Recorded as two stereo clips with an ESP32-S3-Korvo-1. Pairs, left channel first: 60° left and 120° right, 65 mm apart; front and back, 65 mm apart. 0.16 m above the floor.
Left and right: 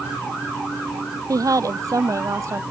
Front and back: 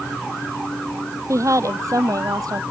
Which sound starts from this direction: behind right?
A woman speaking, at 1.3 s.